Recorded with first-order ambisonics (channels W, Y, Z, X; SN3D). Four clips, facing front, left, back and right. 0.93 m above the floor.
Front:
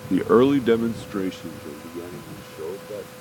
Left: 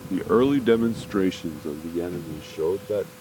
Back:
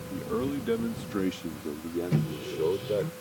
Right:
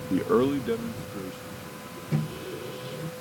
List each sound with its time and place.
0.1 s a man speaking: 5° right; by 3.1 s 110° left
2.1 s a microwave: 145° right